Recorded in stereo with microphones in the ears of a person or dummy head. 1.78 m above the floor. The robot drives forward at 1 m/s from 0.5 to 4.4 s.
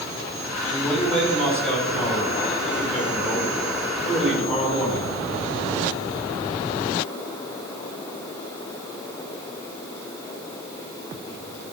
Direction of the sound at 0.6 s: 10° left (ahead or behind).